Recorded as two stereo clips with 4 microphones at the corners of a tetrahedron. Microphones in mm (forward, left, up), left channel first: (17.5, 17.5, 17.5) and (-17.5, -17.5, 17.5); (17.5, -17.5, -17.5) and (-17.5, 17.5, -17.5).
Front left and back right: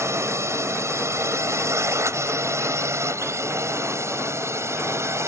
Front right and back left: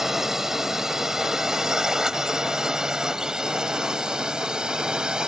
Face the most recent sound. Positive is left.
turn(degrees=-155)